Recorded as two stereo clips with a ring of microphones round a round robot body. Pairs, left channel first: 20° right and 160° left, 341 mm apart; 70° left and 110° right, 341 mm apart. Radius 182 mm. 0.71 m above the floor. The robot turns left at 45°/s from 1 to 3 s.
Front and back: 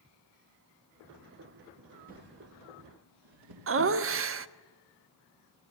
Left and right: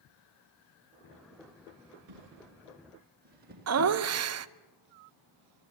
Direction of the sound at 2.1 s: 135° right.